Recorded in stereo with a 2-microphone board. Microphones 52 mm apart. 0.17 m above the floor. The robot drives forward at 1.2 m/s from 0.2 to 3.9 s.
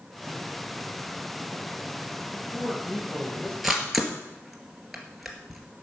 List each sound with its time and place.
2.3 s a man speaking: 15° left (ahead or behind), 4.5 m
3.6 s a camera shutter: centre (ahead or behind), 2.5 m